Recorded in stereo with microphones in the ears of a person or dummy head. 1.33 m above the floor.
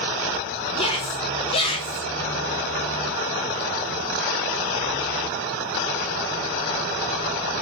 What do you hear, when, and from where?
0.8 s a shout: 30° left (ahead or behind), 2.5 m